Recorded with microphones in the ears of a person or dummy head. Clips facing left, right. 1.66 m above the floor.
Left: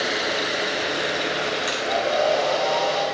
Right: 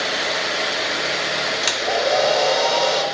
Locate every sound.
1.6 s a hair dryer: 75° right (ahead or behind), 3 m